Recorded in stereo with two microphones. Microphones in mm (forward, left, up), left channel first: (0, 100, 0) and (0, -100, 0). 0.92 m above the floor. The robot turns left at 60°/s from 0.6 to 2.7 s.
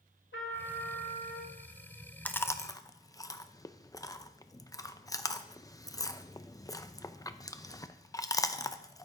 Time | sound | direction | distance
0.3 | a trumpet | 95° left | 2.5 m
2.2 | chewing | 10° left (ahead or behind) | 0.6 m